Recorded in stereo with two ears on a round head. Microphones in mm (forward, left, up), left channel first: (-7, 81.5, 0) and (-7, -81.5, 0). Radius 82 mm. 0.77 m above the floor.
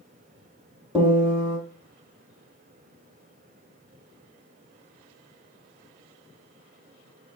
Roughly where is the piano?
Centre.